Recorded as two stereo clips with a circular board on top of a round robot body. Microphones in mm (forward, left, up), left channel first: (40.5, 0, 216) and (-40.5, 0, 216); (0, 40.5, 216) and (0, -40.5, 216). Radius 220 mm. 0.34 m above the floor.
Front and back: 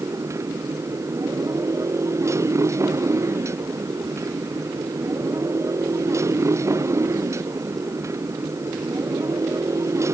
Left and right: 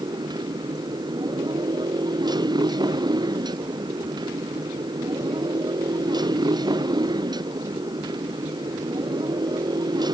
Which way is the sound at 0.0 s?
125° right.